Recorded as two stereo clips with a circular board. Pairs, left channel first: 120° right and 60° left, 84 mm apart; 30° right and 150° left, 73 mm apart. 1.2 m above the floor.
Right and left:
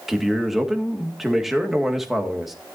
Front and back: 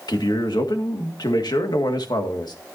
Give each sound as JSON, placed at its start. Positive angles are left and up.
{"t": 0.1, "sound": "a man speaking", "azimuth_deg": -25, "distance_m": 1.9}